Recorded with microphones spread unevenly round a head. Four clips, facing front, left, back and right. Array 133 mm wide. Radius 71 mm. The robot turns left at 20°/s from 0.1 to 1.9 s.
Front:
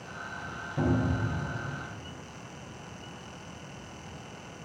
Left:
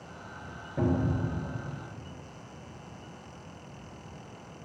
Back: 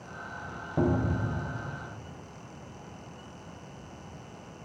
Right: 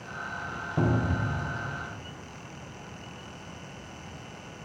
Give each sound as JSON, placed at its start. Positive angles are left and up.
{"t": 0.8, "sound": "a cupboard door", "azimuth_deg": -150, "distance_m": 1.0}